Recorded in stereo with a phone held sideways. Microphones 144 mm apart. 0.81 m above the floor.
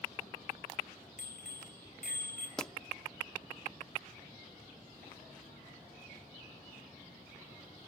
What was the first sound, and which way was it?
A bicycle bell, 80° left.